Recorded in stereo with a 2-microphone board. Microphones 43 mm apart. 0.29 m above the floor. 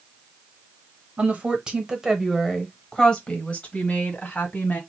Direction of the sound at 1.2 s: 35° right (ahead or behind).